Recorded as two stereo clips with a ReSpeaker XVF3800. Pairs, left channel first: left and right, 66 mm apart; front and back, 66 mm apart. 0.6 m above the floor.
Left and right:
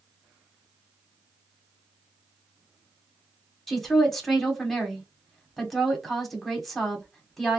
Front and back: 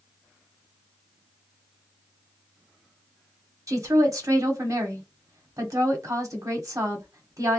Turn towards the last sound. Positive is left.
turn(degrees=175)